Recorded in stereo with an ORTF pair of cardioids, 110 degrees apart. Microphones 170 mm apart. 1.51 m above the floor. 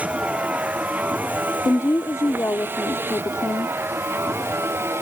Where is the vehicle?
10° right; by 5.0 s 15° right.